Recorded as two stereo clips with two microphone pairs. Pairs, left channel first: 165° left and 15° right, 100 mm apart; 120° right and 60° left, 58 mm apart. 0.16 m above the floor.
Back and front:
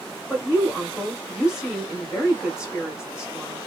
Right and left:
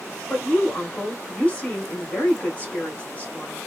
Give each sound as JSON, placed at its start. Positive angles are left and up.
{"t": 0.3, "sound": "a woman speaking", "azimuth_deg": -90, "distance_m": 1.3}